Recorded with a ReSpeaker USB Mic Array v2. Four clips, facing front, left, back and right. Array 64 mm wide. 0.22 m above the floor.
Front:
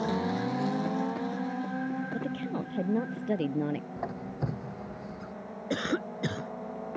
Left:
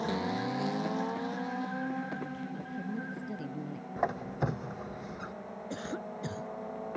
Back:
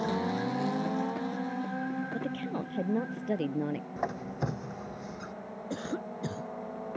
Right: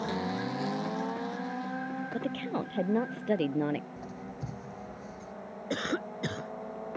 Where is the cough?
40° right.